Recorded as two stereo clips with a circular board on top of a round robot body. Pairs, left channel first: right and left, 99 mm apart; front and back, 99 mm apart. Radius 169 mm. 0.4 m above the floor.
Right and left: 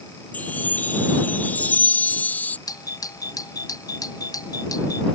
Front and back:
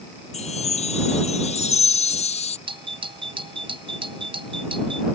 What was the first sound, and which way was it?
A chime, 15° right.